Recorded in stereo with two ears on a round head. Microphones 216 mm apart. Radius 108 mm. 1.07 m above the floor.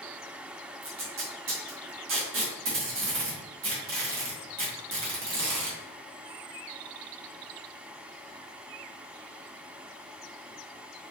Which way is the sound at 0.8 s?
55° right (ahead or behind).